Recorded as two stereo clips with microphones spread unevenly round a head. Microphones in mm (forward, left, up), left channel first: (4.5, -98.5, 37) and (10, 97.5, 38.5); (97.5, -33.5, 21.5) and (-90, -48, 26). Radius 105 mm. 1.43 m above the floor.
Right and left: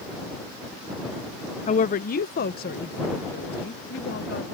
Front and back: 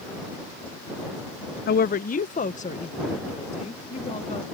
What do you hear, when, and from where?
1.7 s a woman speaking: 35° right; by 4.4 s 50° right